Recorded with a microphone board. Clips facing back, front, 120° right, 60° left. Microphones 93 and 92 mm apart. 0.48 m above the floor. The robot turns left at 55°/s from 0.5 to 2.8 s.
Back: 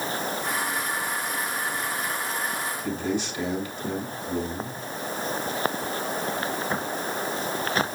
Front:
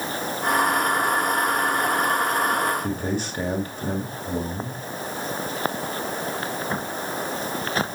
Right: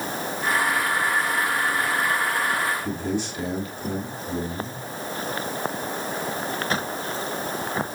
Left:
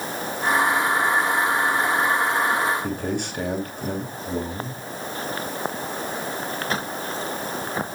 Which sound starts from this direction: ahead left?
A man speaking, at 2.8 s.